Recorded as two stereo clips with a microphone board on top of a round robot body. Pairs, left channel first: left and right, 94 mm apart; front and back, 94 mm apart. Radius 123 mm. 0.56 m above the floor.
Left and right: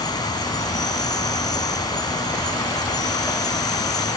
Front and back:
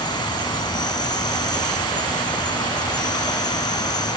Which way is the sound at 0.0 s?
45° left.